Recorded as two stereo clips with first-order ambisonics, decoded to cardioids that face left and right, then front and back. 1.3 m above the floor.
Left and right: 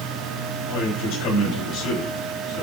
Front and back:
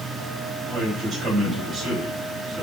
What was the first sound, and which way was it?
A man speaking, 115° left.